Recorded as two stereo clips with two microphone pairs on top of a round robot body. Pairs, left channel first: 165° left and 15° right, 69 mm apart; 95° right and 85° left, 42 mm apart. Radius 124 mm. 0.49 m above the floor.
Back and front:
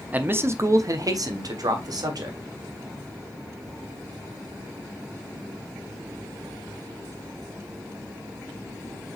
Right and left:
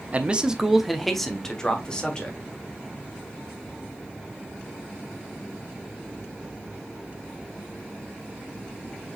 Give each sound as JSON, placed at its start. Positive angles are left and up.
{"t": 0.1, "sound": "a man speaking", "azimuth_deg": 45, "distance_m": 0.8}